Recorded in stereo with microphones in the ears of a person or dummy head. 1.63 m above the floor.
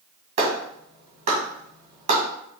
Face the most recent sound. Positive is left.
turn(degrees=-45)  # may be behind; listen again after turning